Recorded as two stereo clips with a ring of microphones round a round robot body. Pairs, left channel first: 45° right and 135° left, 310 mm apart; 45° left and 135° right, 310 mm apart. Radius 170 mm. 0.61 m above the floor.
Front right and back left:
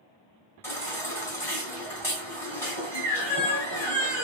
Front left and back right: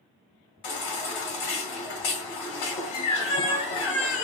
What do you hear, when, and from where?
0.6 s a baby crying: 40° left, 2 m